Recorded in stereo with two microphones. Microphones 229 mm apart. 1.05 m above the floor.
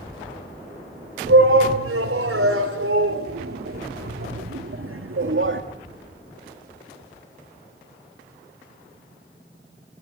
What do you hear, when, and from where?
1.3 s a shout: 75° right (ahead or behind), 4.5 m; by 5.6 s 65° right (ahead or behind), 2.0 m